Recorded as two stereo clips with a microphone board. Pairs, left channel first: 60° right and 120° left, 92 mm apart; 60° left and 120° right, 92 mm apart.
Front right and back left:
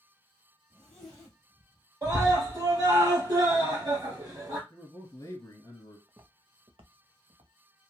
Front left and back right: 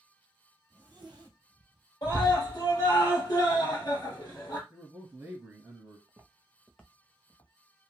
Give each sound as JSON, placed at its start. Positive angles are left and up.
{"t": 0.7, "sound": "a zipper", "azimuth_deg": -145, "distance_m": 1.3}
{"t": 2.0, "sound": "a scream", "azimuth_deg": 80, "distance_m": 1.8}
{"t": 4.7, "sound": "a man speaking", "azimuth_deg": -75, "distance_m": 1.2}
{"t": 6.1, "sound": "footsteps", "azimuth_deg": -175, "distance_m": 0.7}